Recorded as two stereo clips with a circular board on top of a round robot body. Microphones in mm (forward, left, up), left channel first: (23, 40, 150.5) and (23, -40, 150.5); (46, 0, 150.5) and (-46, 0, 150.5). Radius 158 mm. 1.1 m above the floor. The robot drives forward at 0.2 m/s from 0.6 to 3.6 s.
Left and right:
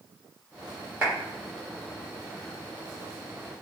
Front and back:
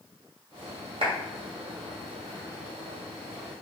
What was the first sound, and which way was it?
A clap, 160° right.